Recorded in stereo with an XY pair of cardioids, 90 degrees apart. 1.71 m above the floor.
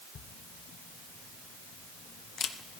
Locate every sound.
0.1 s a camera shutter: 60° left, 0.9 m